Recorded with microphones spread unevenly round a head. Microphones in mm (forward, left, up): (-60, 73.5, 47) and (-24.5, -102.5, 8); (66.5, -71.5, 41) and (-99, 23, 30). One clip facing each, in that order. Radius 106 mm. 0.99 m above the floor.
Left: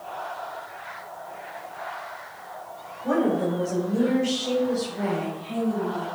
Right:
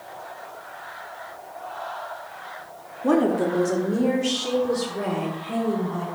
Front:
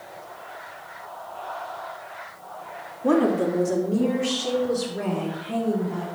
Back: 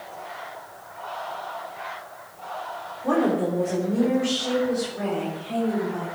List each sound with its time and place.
3.0 s a woman speaking: 70° right, 2 m; by 6.0 s 45° right, 5.5 m